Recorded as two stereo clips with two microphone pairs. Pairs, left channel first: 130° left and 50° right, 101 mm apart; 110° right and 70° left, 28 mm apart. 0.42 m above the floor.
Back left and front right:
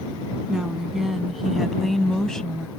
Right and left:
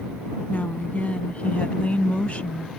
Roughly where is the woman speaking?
Behind right.